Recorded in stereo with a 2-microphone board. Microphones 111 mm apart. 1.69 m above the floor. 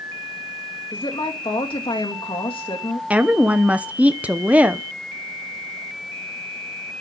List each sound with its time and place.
0.9 s a woman speaking: 50° left (ahead or behind), 2.5 m
3.1 s a woman speaking: 10° right (ahead or behind), 0.7 m